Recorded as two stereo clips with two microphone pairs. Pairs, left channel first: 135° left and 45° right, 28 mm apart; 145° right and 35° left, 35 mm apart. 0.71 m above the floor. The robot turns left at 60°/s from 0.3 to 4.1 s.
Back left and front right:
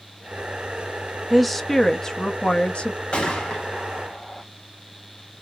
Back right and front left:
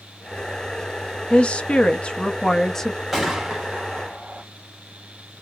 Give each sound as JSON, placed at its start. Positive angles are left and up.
{"t": 1.3, "sound": "a woman speaking", "azimuth_deg": -125, "distance_m": 0.6}
{"t": 3.1, "sound": "a gunshot", "azimuth_deg": 115, "distance_m": 1.2}